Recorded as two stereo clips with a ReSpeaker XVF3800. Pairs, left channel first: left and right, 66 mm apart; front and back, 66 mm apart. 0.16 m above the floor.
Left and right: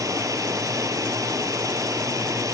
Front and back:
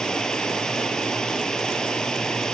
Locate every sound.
0.0 s running water: 80° right, 0.7 m